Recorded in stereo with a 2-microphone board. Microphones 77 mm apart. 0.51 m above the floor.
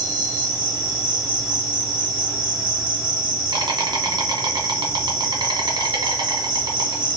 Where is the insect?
80° right, 1.2 m.